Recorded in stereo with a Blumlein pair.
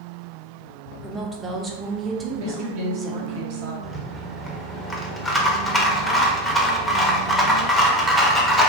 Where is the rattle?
10° left, 0.6 m.